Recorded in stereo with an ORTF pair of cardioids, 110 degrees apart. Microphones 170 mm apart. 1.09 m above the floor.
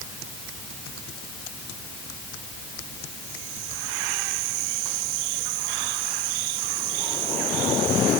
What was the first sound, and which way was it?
Only background noise.